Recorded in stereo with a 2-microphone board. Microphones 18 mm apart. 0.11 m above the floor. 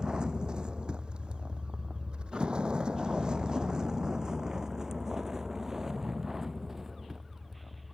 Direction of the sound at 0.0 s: 45° right (ahead or behind).